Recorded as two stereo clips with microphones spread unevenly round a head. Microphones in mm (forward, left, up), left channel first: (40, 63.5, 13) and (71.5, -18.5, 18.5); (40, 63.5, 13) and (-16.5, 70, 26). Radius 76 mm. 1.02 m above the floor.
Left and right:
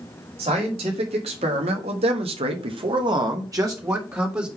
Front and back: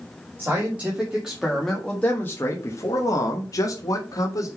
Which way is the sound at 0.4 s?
110° right.